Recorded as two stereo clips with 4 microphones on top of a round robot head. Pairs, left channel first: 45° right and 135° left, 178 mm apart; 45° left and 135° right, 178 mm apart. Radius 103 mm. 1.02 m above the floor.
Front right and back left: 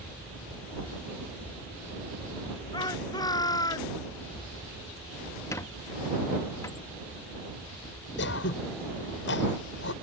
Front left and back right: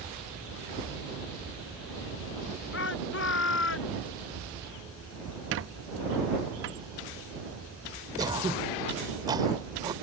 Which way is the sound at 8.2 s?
65° right.